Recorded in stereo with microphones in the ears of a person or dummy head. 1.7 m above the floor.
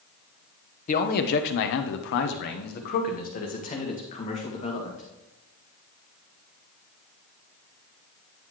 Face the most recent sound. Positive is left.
turn(degrees=35)  # may be behind; listen again after turning